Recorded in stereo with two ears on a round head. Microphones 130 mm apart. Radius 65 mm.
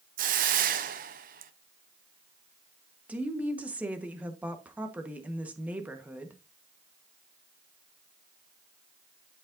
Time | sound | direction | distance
0.2 | a hiss | 60° right (ahead or behind) | 0.8 m
3.1 | a woman speaking | 10° right (ahead or behind) | 1.3 m